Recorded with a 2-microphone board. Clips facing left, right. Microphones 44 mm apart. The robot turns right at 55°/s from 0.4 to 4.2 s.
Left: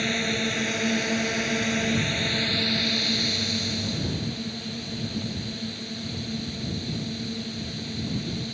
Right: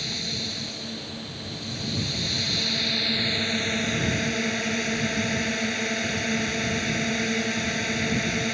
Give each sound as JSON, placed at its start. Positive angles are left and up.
{"t": 0.0, "sound": "a drone", "azimuth_deg": 45}